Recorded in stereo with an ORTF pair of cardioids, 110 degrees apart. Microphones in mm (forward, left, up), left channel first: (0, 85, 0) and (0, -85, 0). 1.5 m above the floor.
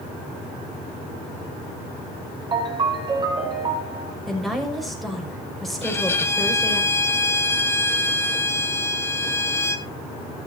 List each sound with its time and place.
2.5 s a ringtone: 30° right, 6 m
4.3 s a woman speaking: straight ahead, 5.5 m
5.8 s a violin: 15° left, 1.3 m